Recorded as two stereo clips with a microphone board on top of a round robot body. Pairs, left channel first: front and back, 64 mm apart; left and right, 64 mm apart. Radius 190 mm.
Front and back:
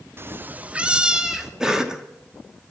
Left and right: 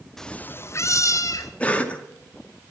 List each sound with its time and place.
0.2 s a cat meowing: 170° left, 0.5 m; by 1.5 s 95° left, 1.0 m
1.6 s a cough: 115° left, 1.1 m